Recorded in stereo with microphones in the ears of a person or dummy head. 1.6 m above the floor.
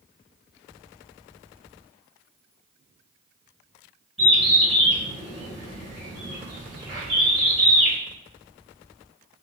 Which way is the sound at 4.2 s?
Centre (ahead or behind).